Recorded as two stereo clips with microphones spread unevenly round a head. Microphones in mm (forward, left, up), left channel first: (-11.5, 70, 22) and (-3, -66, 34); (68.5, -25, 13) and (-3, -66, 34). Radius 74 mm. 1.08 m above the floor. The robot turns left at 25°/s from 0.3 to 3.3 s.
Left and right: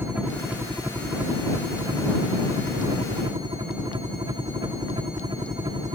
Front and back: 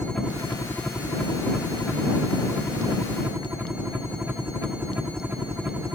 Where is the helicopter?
10° right; by 6.0 s 85° right.